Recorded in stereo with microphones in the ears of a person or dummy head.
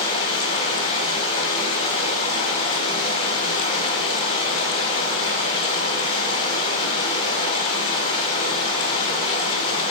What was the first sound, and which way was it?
Running water, 35° left (ahead or behind).